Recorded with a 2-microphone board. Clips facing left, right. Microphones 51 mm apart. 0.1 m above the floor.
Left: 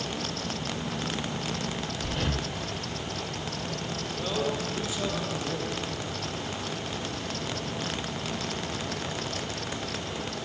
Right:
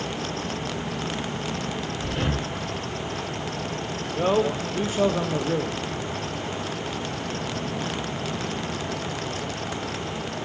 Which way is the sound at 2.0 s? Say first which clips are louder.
Right 4 dB; 15° right (ahead or behind).